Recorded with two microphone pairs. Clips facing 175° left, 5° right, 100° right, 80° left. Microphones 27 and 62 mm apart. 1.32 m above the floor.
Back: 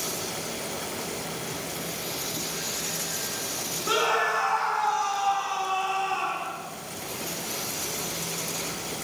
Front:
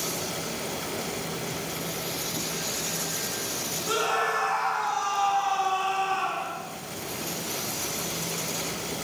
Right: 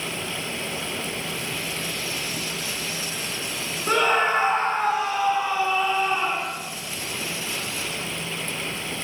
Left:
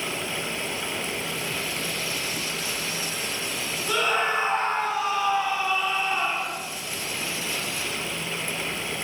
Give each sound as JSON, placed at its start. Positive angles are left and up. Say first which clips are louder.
{"t": 3.9, "sound": "a scream", "louder": "back 2 dB, right 4 dB", "azimuth_deg": -125, "distance_m": 0.9}